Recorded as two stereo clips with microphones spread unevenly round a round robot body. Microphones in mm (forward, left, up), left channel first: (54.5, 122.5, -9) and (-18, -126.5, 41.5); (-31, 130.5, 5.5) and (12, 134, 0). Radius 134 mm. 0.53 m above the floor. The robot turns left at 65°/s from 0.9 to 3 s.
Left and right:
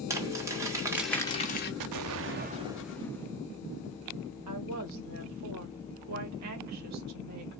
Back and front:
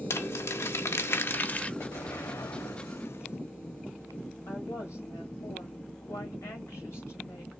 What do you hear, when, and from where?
0.1 s crumpling: 170° left, 1.2 m; by 1.7 s 120° left, 1.2 m
1.8 s an explosion: 125° right, 0.6 m; by 3.4 s 160° left, 0.6 m
4.5 s a woman speaking: 140° right, 2.0 m